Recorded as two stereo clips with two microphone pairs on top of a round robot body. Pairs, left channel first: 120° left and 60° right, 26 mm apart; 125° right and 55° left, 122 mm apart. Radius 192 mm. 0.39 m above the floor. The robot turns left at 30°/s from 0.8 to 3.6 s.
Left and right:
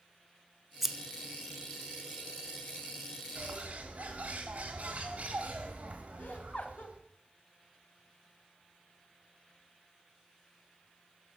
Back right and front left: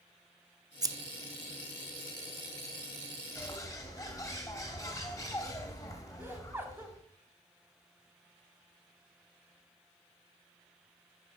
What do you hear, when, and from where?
0.8 s scissors: 10° left, 0.6 m; by 0.9 s 5° left, 0.6 m
3.4 s a bird: 65° right, 1.3 m; by 7.0 s 70° right, 1.3 m
6.2 s laughter: 125° left, 1.1 m